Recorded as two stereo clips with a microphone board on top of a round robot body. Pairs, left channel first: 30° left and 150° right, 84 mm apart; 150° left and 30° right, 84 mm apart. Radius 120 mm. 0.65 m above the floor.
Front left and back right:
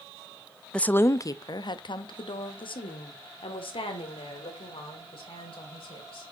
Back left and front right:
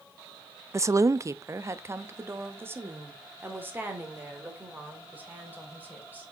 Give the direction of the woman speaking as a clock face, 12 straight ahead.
1 o'clock.